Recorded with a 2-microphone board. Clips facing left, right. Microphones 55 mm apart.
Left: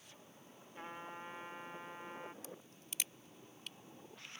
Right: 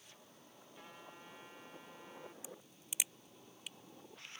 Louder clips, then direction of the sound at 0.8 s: Left 8 dB; 40° left (ahead or behind).